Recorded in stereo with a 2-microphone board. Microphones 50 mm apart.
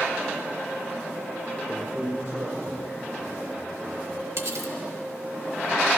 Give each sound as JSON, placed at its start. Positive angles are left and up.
{"t": 1.7, "sound": "a man speaking", "side_deg": -60, "distance_m": 1.5}
{"t": 4.4, "sound": "cutlery clinking", "side_deg": -70, "distance_m": 0.8}